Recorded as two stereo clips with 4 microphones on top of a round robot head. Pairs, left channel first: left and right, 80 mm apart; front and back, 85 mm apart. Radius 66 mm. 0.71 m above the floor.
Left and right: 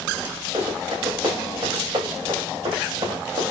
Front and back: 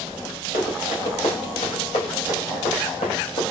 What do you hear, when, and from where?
0.5 s running footsteps: 25° right, 7 m; by 3.4 s 30° right, 8.5 m